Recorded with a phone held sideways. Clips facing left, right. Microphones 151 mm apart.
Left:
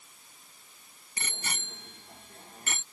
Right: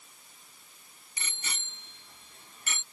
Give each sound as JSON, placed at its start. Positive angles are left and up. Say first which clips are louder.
{"t": 1.2, "sound": "a bicycle bell", "louder": "left 4 dB", "side_deg": 55}